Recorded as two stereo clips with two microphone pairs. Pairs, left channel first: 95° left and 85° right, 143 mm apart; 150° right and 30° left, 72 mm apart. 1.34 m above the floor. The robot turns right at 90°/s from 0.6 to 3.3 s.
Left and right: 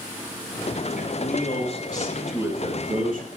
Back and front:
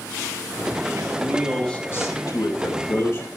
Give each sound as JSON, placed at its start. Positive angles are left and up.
{"t": 1.0, "sound": "a man speaking", "azimuth_deg": 70, "distance_m": 5.0}